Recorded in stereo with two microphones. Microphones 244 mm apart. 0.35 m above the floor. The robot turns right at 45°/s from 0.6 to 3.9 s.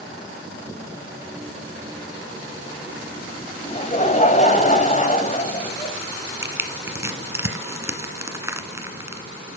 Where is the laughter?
20° left (ahead or behind), 2.5 m; by 6.0 s 30° left (ahead or behind), 2.5 m.